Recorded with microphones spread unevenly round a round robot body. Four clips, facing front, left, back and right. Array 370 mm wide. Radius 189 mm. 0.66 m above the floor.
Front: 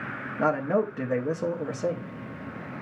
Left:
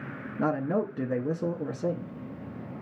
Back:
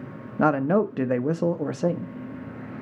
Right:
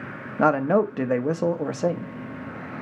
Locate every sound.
0.4 s a man speaking: 130° right, 0.6 m